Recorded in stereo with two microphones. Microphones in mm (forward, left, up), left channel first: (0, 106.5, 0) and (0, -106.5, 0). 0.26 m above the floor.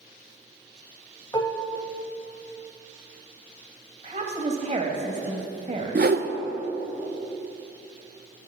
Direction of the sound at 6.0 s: 50° right (ahead or behind).